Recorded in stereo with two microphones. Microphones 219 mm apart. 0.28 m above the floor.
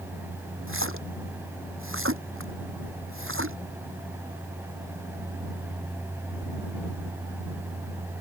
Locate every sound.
0.7 s a splash: 70° right (ahead or behind)